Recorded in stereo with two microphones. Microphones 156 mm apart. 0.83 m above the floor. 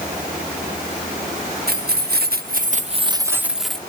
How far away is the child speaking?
No child speaking in this recording.